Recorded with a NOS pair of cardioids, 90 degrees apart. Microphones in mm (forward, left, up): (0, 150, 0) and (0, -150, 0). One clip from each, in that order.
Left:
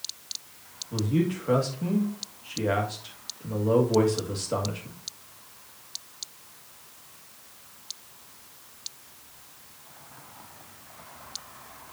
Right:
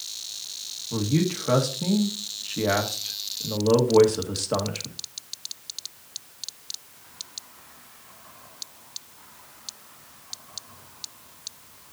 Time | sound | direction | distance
0.9 | a man speaking | 25° right | 1.7 m